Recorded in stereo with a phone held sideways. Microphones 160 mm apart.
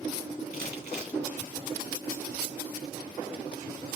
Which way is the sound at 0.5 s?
85° right.